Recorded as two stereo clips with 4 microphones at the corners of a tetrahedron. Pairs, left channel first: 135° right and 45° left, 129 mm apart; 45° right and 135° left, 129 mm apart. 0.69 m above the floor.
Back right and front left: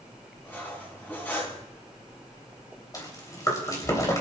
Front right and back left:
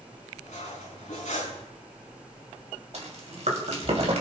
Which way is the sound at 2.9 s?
165° left.